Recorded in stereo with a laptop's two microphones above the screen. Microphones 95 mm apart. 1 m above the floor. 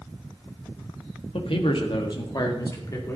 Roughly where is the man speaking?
Left.